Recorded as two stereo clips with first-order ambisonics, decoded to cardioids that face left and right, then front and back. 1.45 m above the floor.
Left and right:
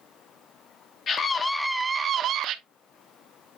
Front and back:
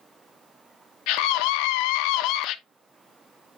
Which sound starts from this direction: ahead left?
A scream, at 1.1 s.